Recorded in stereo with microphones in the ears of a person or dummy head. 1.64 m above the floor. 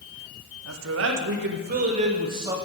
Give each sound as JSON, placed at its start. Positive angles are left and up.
{"t": 0.7, "sound": "a man speaking", "side_deg": -80, "distance_m": 1.4}